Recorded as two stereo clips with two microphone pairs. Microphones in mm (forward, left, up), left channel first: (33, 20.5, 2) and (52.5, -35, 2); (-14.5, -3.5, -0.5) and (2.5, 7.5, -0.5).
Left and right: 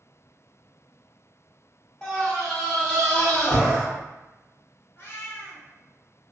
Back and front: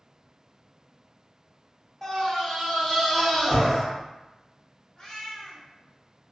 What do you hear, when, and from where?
2.0 s a scream: 170° left, 1.1 m
5.0 s a cat meowing: 155° left, 0.8 m